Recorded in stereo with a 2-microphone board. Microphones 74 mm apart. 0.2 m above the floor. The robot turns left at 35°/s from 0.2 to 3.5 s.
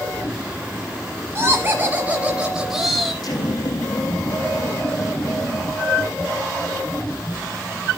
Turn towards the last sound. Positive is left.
turn(degrees=75)  # may be behind; listen again after turning